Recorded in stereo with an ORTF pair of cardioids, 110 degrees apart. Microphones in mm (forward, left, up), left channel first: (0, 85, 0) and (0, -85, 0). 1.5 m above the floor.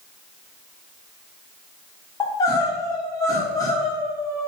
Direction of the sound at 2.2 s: 20° left.